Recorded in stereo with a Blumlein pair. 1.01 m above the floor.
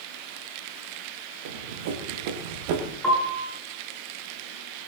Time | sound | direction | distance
1.4 | running footsteps | 55° right | 3.5 m
3.0 | a piano | straight ahead | 5 m